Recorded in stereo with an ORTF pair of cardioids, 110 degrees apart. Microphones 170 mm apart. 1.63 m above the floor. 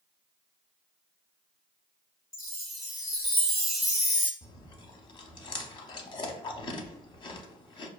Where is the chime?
Straight ahead, 0.9 m.